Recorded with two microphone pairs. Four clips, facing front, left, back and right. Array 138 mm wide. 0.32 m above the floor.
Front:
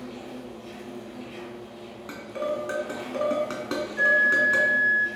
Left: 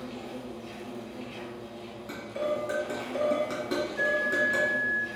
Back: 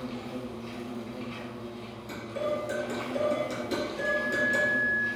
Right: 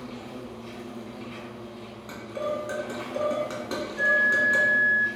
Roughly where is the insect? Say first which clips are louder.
Even, back 1 dB; behind right.